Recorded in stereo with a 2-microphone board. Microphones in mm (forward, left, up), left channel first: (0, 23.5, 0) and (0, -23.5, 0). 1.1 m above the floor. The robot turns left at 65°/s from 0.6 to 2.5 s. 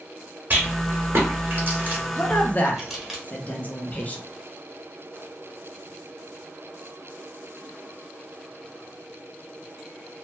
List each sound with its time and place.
0.5 s a rattle: 45° right (ahead or behind), 1.2 m; by 3.2 s centre (ahead or behind), 1.2 m
2.2 s a woman speaking: 20° left (ahead or behind), 0.6 m; by 4.2 s 35° left (ahead or behind), 0.6 m